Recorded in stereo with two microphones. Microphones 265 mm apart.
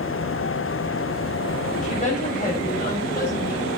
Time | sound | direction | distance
1.8 | a woman speaking | 30° left (ahead or behind) | 5 m